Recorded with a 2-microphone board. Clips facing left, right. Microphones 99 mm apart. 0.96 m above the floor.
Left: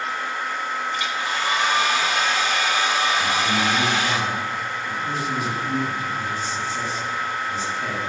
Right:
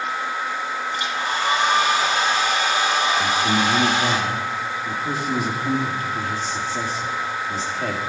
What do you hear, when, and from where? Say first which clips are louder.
0.9 s a hair dryer: right 1 dB; 30° right (ahead or behind), 2 m
3.2 s a man speaking: right 2 dB; 65° right (ahead or behind), 2.0 m